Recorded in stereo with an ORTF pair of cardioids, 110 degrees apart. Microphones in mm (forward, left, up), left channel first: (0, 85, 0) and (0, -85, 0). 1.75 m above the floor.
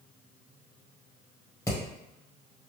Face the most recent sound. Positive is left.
turn(degrees=20)